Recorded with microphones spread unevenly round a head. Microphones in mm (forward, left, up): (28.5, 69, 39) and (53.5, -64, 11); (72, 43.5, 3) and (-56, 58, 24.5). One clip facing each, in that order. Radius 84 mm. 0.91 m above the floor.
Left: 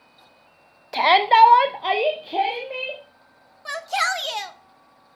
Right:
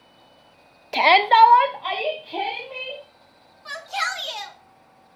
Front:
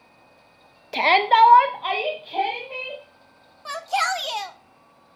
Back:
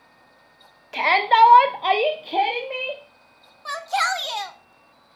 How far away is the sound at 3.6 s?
About 1.0 m.